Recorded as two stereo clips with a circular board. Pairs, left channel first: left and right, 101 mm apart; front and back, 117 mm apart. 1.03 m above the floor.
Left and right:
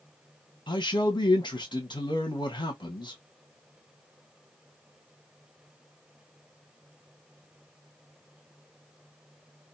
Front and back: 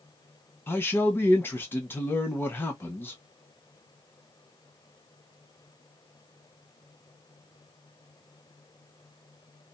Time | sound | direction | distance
0.7 | a man speaking | 65° left | 1.0 m